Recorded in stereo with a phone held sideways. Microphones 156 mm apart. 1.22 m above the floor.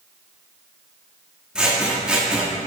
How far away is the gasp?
I don't hear a gasp.